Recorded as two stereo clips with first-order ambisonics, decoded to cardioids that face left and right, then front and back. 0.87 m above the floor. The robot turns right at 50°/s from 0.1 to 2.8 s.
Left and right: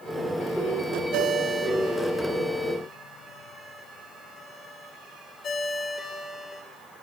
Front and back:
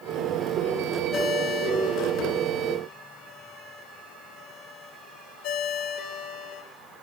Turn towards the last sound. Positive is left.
turn(degrees=30)